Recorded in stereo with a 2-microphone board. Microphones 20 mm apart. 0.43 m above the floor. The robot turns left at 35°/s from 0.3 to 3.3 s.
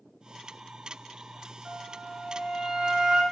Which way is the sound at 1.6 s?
90° right.